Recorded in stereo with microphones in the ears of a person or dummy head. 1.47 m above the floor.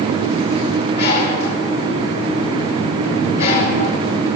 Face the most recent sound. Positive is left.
turn(degrees=50)  # may be behind; listen again after turning